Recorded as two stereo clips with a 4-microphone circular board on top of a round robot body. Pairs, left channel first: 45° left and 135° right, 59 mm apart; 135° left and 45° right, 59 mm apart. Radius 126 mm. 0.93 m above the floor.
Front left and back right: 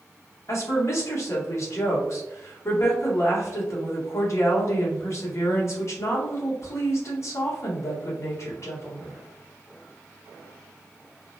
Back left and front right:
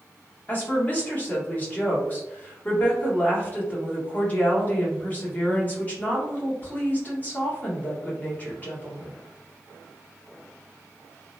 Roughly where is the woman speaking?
Left.